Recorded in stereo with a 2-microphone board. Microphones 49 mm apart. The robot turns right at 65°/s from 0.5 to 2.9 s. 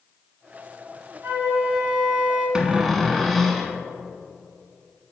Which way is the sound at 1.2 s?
120° right.